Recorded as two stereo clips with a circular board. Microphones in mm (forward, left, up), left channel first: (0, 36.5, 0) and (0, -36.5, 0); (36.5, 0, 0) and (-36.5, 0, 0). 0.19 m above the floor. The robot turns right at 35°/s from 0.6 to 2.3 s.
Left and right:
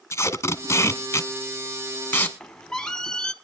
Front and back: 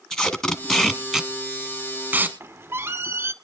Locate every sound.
0.1 s tape being pulled: 80° left, 1.2 m; by 2.3 s 140° left, 1.2 m
2.4 s a squeak: 165° left, 0.7 m